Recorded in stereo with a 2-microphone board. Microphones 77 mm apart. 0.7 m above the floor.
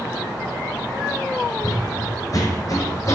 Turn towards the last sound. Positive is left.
turn(degrees=40)  # may be behind; listen again after turning